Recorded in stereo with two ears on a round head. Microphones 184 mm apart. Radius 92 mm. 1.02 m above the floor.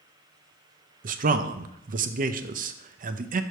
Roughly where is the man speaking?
Right.